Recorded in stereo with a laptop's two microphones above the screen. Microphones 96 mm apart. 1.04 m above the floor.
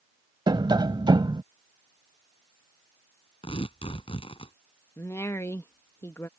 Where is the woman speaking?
30° left (ahead or behind).